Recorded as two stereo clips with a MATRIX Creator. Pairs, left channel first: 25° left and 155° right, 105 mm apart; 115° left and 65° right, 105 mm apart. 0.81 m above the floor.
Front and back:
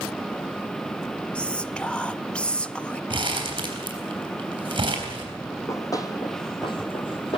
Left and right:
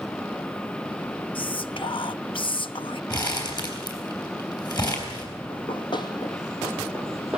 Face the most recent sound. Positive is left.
turn(degrees=15)